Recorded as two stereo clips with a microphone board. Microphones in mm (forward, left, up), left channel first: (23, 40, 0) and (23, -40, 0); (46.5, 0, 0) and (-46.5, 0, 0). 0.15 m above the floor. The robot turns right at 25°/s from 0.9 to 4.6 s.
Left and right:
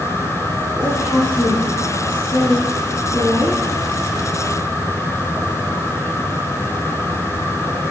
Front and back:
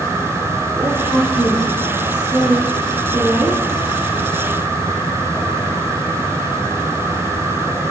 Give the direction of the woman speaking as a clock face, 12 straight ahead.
5 o'clock.